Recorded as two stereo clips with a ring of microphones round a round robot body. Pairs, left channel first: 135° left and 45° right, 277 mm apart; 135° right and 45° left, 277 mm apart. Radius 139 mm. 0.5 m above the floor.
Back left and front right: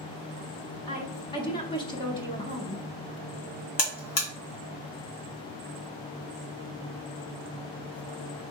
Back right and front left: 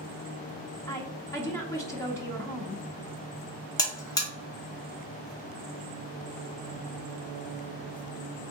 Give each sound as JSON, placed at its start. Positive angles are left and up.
{"t": 0.9, "sound": "a woman speaking", "azimuth_deg": 170, "distance_m": 0.6}
{"t": 3.8, "sound": "a buzzer", "azimuth_deg": 145, "distance_m": 1.2}